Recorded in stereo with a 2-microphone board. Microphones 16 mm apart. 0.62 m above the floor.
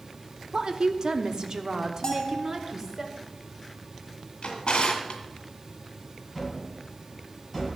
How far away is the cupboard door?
About 5.5 m.